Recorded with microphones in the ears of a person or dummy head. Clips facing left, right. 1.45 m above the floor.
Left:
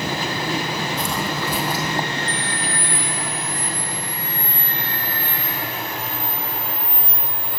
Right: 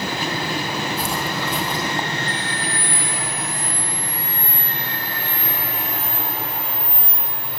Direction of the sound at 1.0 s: 10° right (ahead or behind).